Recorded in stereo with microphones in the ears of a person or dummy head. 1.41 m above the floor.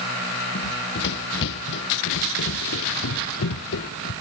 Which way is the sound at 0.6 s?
60° left (ahead or behind).